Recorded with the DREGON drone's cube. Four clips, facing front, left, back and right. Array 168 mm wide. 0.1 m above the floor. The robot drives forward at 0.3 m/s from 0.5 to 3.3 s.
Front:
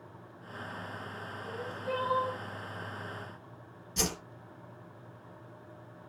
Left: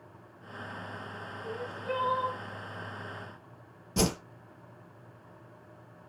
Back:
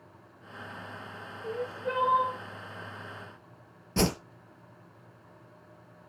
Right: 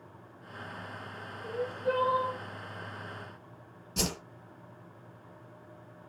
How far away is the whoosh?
About 1.2 m.